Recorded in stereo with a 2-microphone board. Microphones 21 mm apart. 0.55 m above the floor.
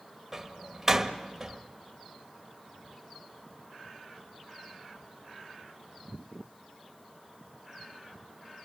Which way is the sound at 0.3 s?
15° right (ahead or behind).